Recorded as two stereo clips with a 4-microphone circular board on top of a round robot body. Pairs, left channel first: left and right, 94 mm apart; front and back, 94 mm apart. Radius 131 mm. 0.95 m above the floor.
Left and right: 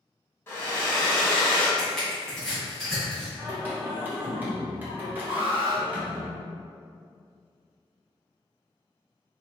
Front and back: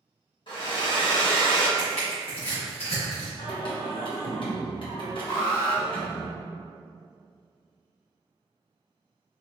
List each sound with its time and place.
0.5 s a hair dryer: 25° left, 2.0 m
1.8 s crushing: straight ahead, 1.5 m
3.4 s singing: 20° right, 1.3 m
5.3 s an alarm: 55° right, 1.4 m